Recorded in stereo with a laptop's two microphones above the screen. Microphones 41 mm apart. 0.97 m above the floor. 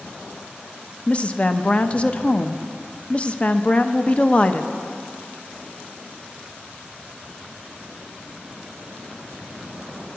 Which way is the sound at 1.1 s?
35° left (ahead or behind).